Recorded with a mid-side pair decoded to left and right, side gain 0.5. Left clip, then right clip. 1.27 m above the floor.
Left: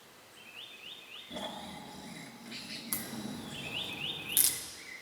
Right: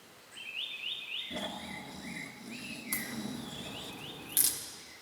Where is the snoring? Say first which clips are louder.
Right 2 dB; 15° right, 1.6 m.